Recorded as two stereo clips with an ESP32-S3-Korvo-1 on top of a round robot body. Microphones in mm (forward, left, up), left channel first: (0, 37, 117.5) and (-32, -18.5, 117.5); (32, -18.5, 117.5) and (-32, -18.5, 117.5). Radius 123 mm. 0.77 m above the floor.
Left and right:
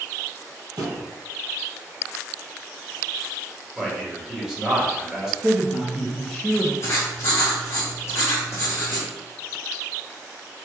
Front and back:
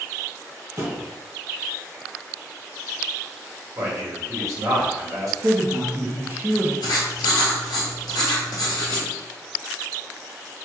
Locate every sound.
0.8 s a thud: 140° right, 1.6 m
3.8 s a man speaking: 160° left, 1.9 m
5.4 s a woman speaking: 145° left, 0.9 m
6.8 s writing: 10° left, 1.0 m